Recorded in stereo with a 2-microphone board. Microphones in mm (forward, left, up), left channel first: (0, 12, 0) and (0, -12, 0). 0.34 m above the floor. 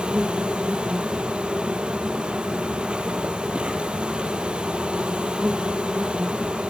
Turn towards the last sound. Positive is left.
turn(degrees=-40)  # may be behind; listen again after turning